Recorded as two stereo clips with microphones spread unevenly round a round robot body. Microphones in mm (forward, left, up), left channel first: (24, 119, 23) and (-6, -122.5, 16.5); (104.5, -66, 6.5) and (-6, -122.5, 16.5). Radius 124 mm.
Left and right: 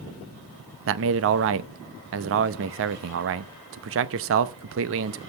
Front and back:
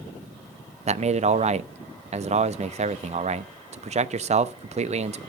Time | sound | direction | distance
0.9 | a man speaking | 125° right | 0.8 m